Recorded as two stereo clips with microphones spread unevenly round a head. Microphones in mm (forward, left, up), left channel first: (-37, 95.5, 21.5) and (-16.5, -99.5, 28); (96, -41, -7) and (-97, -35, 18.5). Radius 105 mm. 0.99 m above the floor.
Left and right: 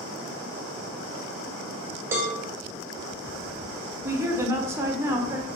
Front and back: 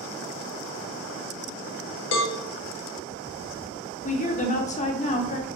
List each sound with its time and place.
2.1 s a cowbell: 5° right, 0.8 m
4.0 s a woman speaking: 10° right, 0.6 m